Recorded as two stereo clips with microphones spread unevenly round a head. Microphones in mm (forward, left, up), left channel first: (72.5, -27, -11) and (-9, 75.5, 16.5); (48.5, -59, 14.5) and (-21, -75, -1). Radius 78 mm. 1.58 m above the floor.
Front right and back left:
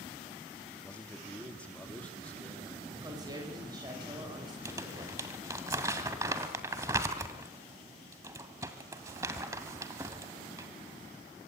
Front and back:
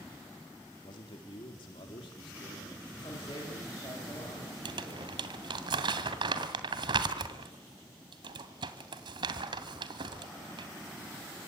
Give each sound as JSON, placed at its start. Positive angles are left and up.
{"t": 0.8, "sound": "a man speaking", "azimuth_deg": 30, "distance_m": 4.5}
{"t": 2.9, "sound": "a woman speaking", "azimuth_deg": 70, "distance_m": 8.5}
{"t": 4.7, "sound": "crumpling", "azimuth_deg": -175, "distance_m": 2.5}